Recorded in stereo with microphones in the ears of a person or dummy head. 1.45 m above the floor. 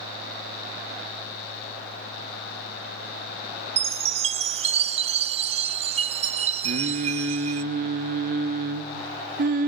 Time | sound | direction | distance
3.8 | a chime | 30° right (ahead or behind) | 0.5 m
6.6 | singing | 55° right (ahead or behind) | 1.3 m